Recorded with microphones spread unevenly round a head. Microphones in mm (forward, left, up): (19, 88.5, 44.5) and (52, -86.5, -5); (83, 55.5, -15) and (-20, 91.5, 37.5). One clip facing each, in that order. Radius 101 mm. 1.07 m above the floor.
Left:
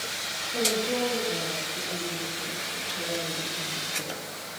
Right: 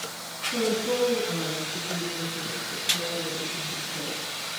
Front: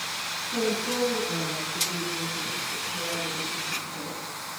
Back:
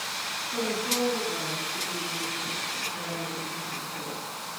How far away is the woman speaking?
About 8.5 m.